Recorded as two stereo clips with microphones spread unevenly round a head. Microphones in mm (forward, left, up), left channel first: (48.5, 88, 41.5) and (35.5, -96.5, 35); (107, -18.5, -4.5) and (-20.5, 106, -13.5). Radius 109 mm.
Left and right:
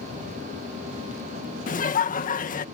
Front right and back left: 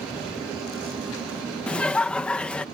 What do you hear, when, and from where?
1.7 s laughter: 40° left